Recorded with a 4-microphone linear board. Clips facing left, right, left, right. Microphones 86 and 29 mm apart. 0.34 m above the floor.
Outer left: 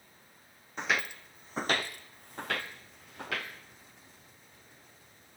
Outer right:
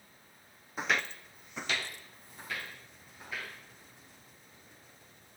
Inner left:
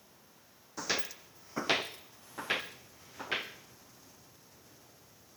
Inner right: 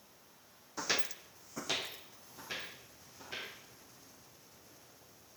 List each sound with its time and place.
0.8 s footsteps: 5° right (ahead or behind), 0.7 m; by 3.5 s 75° left (ahead or behind), 1.9 m